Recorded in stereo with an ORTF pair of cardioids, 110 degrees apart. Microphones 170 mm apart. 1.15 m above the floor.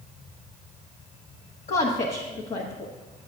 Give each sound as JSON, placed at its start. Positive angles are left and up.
{"t": 1.7, "sound": "a woman speaking", "azimuth_deg": 40, "distance_m": 1.1}